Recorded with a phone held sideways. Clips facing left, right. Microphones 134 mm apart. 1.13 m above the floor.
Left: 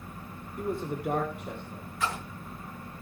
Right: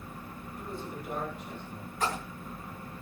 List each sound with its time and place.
0.6 s a man speaking: 60° left (ahead or behind), 2.5 m; by 1.9 s 80° left, 4 m
2.0 s a splash: 40° right (ahead or behind), 4 m